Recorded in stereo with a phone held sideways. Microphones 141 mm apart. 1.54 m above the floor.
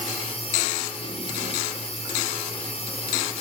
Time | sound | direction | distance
0.0 | a machine running | 45° left (ahead or behind) | 3.5 m